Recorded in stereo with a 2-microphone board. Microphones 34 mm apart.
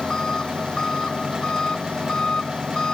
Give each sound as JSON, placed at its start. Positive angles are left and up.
{"t": 0.0, "sound": "an engine running", "side_deg": 25}